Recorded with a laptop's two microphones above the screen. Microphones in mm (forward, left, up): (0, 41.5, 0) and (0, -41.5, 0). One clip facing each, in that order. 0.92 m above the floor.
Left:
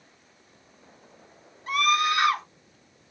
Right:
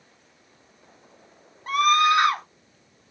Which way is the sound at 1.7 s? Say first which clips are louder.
Right 5 dB; 45° right (ahead or behind).